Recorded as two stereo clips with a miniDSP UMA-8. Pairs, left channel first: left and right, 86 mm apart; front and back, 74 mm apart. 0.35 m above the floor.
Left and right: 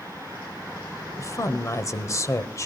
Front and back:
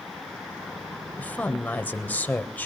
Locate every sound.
1.2 s a woman speaking: 55° left, 1.3 m